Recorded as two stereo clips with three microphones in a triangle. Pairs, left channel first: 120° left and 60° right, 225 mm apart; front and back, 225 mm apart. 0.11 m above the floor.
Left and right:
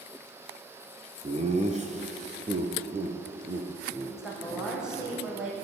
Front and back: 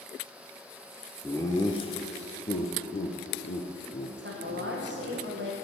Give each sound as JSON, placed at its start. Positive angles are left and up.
{"t": 1.2, "sound": "laughter", "azimuth_deg": -70, "distance_m": 1.6}
{"t": 4.2, "sound": "a woman speaking", "azimuth_deg": -145, "distance_m": 5.5}